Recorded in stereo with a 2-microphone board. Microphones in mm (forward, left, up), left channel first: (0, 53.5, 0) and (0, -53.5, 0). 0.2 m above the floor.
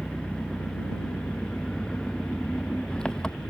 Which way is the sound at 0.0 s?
5° left (ahead or behind).